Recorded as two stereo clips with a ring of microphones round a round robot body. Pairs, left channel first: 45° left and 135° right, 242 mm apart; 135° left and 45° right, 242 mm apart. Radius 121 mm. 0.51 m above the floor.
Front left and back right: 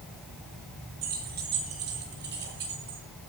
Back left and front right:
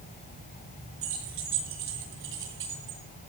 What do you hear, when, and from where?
1.0 s keys jangling: 80° right, 5 m; by 3.0 s 90° right, 7 m